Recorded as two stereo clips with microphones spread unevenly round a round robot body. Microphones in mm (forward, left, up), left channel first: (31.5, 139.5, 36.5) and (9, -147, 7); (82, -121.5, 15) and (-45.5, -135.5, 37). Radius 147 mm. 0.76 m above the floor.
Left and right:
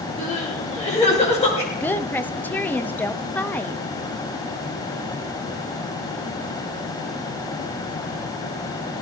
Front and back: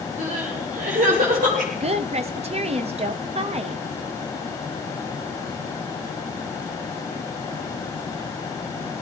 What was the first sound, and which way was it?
Crying, 155° left.